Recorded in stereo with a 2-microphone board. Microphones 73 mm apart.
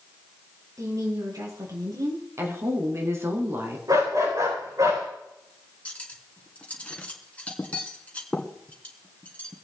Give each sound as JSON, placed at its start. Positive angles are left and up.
{"t": 0.8, "sound": "a woman speaking", "side_deg": -55, "distance_m": 4.5}
{"t": 2.4, "sound": "a woman speaking", "side_deg": -40, "distance_m": 3.0}
{"t": 3.9, "sound": "a dog barking", "side_deg": -60, "distance_m": 8.5}
{"t": 5.8, "sound": "cutlery clinking", "side_deg": 20, "distance_m": 1.9}